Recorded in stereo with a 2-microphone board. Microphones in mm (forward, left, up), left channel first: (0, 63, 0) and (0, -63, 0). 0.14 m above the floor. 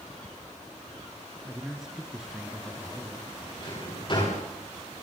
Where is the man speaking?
5° right (ahead or behind), 2.5 m.